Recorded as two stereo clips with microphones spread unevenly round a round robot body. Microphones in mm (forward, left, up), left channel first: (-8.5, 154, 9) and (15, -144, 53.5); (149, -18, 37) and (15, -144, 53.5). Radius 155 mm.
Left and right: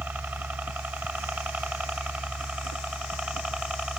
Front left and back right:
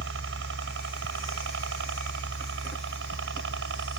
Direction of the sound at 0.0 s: 170° right.